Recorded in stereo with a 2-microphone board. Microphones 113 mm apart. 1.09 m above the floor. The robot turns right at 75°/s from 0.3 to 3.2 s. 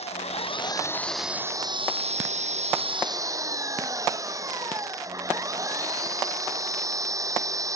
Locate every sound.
0.0 s an engine running: 115° left; by 7.8 s 30° right